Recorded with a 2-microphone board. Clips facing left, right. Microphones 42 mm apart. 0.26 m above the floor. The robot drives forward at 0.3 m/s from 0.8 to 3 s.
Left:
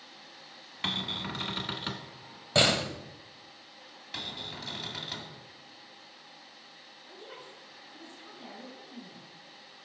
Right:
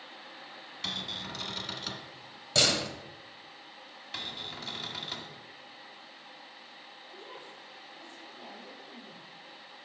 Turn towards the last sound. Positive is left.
turn(degrees=40)  # may be behind; listen again after turning